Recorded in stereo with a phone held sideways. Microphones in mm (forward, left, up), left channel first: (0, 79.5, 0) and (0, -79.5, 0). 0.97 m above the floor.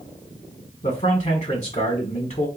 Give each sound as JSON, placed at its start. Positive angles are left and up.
{"t": 0.8, "sound": "a man speaking", "side_deg": 45, "distance_m": 1.3}